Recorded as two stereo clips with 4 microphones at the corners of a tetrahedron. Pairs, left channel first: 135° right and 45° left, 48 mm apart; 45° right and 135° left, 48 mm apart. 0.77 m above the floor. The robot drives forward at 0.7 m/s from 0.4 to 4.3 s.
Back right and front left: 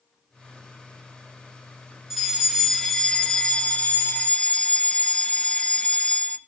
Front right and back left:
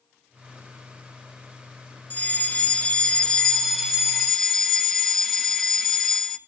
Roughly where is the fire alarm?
Ahead right.